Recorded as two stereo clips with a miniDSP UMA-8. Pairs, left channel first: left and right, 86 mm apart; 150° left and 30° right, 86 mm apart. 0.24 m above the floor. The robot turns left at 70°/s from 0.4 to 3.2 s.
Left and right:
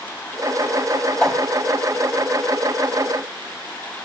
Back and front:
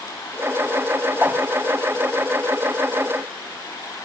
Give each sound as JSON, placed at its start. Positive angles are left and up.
{"t": 1.2, "sound": "a whoosh", "azimuth_deg": 15, "distance_m": 1.4}